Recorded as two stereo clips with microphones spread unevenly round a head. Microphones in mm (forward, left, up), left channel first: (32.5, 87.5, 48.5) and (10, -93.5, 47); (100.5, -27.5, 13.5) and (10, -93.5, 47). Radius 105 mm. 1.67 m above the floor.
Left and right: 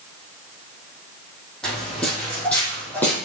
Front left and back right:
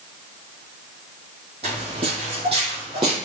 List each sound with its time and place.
1.6 s footsteps: 170° left, 4.5 m; by 3.2 s 165° left, 3.5 m